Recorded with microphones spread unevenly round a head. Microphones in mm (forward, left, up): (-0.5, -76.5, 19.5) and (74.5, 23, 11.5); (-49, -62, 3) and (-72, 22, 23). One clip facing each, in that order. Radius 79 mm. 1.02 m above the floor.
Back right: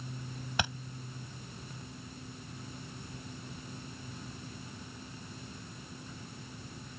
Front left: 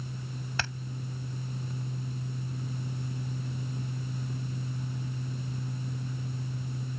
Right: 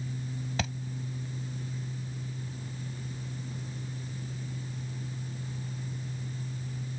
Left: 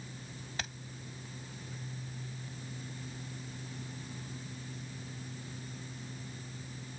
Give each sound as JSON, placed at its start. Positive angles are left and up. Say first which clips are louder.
{"t": 0.6, "sound": "a thud", "louder": "back right 3 dB, right 7 dB", "azimuth_deg": -55}